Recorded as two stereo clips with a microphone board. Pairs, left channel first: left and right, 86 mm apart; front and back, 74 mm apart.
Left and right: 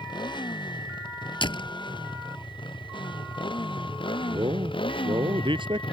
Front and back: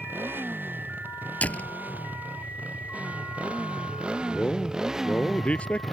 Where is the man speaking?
75° right.